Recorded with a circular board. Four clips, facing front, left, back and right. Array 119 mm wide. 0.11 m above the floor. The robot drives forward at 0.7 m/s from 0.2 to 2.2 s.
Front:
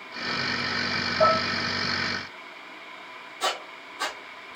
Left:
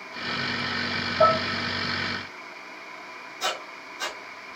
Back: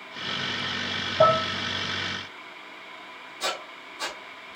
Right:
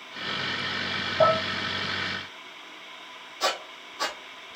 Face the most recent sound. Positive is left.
turn(degrees=-80)